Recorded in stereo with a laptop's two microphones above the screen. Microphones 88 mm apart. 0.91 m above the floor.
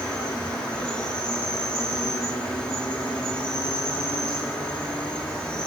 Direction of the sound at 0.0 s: 10° left (ahead or behind).